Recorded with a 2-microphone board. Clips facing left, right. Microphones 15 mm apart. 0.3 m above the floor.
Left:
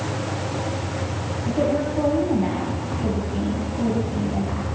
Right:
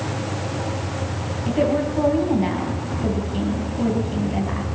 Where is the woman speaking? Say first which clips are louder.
Right 2 dB; 20° right (ahead or behind), 2.5 m.